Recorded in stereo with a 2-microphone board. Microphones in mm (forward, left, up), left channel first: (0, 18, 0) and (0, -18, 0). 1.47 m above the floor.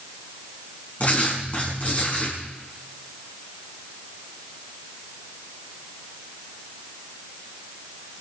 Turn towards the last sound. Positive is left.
turn(degrees=40)  # may be behind; listen again after turning